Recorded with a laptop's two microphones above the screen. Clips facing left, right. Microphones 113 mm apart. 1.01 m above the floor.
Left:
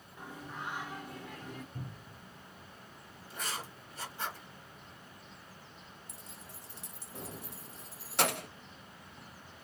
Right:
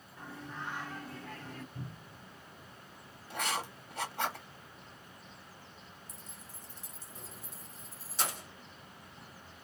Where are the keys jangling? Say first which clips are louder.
Left 1 dB; 70° left (ahead or behind), 0.6 m.